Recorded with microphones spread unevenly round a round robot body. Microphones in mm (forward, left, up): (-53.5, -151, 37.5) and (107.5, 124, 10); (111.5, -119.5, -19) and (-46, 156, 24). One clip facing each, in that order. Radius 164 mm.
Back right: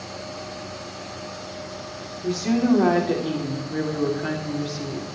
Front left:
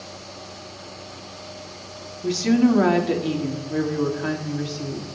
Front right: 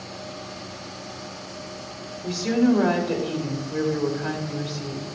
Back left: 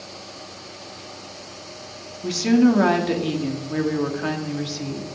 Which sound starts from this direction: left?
A woman speaking, at 2.2 s.